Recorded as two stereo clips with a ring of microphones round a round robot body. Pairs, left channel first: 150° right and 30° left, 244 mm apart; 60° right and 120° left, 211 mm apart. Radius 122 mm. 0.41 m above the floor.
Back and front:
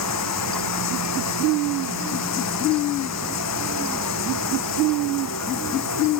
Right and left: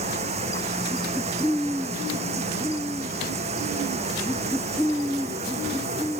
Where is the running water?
175° right.